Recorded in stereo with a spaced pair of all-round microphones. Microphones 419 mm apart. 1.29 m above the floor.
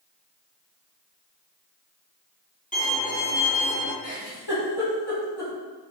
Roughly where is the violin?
Centre.